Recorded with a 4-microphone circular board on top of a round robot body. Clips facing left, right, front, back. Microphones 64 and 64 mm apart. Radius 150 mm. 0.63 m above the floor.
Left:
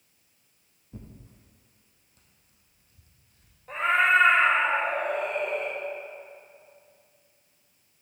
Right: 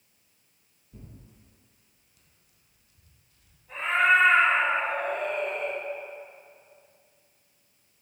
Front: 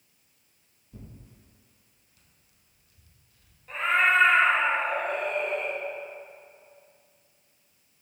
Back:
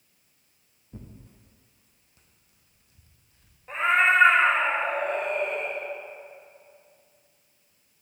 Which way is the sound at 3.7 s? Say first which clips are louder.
Even, back 2 dB; 115° left.